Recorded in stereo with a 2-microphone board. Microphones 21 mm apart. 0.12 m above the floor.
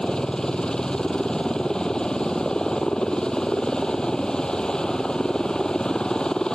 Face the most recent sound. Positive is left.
turn(degrees=35)  # may be behind; listen again after turning